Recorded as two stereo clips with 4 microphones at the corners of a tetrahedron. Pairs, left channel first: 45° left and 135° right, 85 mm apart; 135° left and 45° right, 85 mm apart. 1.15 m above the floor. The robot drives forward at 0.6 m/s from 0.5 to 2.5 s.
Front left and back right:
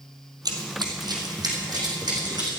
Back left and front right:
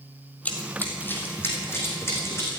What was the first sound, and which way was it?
Running footsteps, 155° right.